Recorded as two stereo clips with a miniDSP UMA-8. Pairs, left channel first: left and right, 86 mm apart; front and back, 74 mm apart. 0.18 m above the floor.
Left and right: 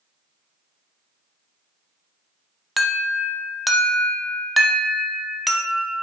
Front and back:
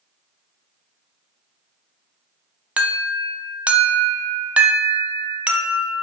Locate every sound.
2.8 s an alarm: straight behind, 0.9 m